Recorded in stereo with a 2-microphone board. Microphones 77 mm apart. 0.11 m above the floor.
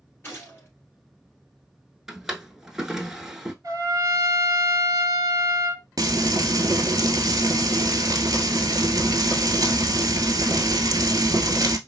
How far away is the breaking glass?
I don't hear breaking glass.